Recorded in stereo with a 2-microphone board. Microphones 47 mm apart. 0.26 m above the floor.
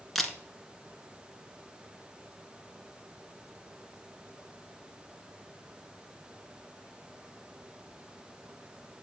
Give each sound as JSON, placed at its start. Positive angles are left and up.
{"t": 0.1, "sound": "a camera shutter", "side_deg": 5, "distance_m": 1.0}